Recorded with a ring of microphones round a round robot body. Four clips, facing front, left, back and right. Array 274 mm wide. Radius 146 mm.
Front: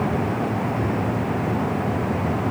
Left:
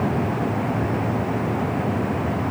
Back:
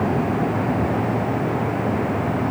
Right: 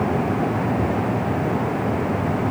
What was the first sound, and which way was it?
Only background noise.